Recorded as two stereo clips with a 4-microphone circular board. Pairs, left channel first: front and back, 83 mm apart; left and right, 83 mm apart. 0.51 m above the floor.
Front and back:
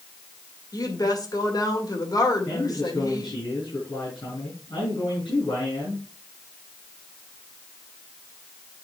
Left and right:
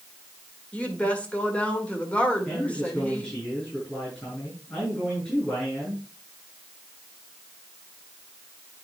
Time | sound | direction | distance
0.7 | a woman speaking | 20° left | 1.8 m
2.5 | a man speaking | 15° left | 5.5 m